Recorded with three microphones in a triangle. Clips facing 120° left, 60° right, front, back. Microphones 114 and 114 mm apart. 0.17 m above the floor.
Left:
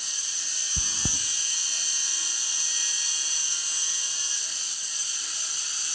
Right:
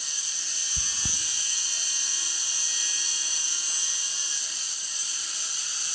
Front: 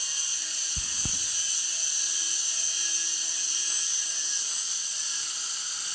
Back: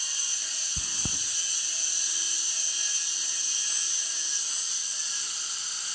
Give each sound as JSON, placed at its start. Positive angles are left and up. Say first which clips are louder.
{"t": 0.8, "sound": "chewing", "louder": "left 6 dB, back 2 dB", "azimuth_deg": 110, "distance_m": 0.7}